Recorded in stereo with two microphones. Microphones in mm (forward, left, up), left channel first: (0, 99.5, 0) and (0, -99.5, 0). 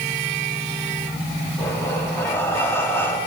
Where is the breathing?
10° left (ahead or behind), 4 m.